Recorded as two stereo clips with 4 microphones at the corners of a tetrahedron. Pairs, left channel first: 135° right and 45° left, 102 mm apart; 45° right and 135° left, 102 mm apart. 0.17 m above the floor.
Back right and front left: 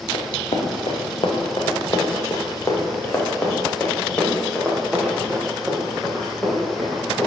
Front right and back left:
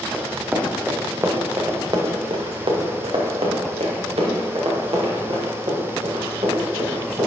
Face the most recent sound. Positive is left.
turn(degrees=130)